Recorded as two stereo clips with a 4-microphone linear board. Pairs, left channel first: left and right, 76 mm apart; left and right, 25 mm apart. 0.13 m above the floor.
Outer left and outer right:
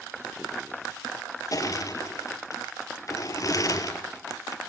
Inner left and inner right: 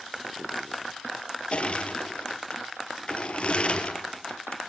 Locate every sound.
1.5 s crushing: 50° left (ahead or behind), 2 m